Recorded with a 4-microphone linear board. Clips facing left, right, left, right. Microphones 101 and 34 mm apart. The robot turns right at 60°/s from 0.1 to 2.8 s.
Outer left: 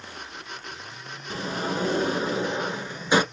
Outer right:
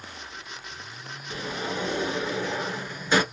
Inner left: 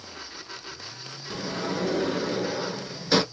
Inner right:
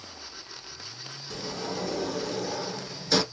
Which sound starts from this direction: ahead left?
A sliding door, at 1.3 s.